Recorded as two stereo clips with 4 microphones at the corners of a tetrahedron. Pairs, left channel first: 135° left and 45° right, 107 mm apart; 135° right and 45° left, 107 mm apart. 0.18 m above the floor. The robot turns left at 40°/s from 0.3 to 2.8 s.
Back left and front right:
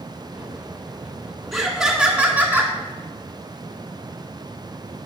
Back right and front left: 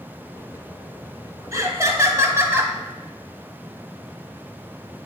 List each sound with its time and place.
1.5 s laughter: 45° left, 1.1 m; by 2.7 s 5° right, 1.1 m